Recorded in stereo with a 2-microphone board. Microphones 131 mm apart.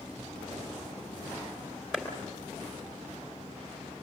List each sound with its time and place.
1.9 s a clap: 5° right (ahead or behind), 3.5 m